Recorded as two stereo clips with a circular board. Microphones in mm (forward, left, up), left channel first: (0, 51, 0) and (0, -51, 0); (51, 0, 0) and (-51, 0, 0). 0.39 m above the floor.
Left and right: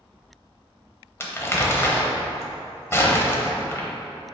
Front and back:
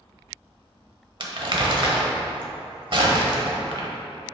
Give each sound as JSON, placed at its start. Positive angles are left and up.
{"t": 1.2, "sound": "crumpling", "azimuth_deg": 150, "distance_m": 0.9}